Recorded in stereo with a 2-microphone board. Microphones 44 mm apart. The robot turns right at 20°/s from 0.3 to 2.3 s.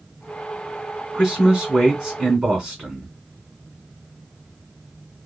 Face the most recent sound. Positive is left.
turn(degrees=-20)  # may be behind; listen again after turning